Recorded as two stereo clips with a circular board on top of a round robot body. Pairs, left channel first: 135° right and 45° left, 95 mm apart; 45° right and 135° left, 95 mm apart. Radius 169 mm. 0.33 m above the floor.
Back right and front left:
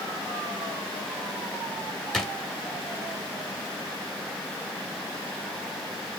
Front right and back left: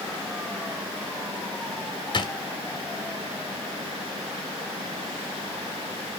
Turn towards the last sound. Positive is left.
turn(degrees=-50)